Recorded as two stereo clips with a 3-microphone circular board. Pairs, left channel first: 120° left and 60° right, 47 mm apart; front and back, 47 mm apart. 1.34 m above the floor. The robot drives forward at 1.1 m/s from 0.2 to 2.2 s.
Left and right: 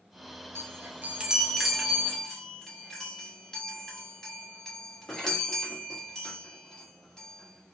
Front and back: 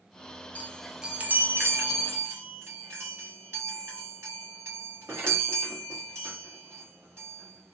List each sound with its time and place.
0.6 s a chime: 55° right, 0.7 m; by 7.8 s 160° right, 1.5 m